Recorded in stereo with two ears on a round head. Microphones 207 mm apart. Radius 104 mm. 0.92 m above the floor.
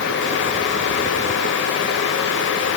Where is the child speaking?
No child speaking in this recording.